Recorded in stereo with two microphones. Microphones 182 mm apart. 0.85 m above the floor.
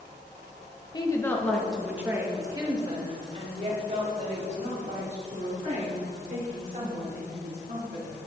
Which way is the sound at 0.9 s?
25° left (ahead or behind).